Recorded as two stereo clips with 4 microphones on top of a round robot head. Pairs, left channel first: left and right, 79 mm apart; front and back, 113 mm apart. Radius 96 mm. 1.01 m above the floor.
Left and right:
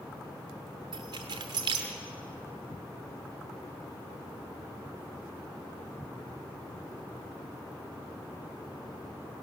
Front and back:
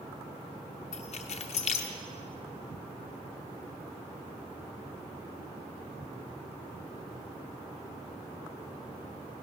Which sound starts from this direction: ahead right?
Keys jangling, at 0.9 s.